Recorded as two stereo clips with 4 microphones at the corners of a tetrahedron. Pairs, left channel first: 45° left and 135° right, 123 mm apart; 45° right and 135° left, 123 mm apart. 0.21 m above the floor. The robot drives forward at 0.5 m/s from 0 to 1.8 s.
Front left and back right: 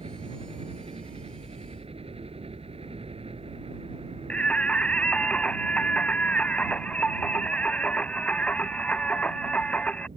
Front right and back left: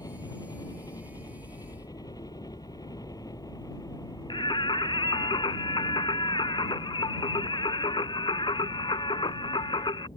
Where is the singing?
30° right.